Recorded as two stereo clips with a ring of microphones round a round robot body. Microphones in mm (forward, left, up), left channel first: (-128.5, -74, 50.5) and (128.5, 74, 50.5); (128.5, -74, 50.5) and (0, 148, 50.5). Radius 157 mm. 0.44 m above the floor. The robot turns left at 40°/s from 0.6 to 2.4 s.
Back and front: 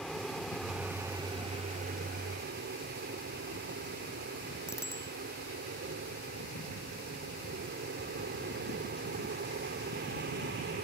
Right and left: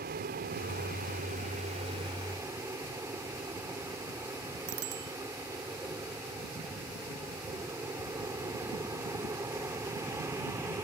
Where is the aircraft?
120° left; by 10.8 s 50° left.